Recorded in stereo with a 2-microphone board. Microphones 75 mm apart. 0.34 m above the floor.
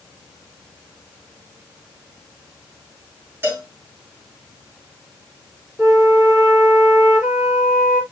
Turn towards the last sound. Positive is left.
turn(degrees=-30)  # may be behind; listen again after turning